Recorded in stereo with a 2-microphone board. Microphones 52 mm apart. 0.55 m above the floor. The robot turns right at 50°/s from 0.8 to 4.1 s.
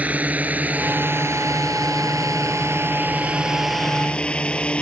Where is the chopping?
No chopping in this recording.